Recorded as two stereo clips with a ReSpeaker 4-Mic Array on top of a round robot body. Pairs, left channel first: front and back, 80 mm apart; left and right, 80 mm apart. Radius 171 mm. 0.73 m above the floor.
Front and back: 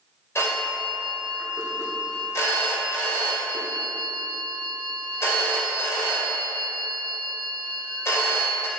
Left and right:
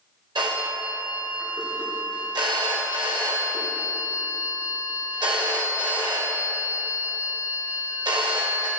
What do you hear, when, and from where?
0.3 s a phone ringing: 60° right, 3 m